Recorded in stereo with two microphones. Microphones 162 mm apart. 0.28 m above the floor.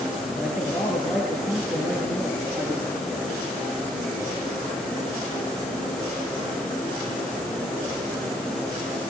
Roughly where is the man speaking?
Centre.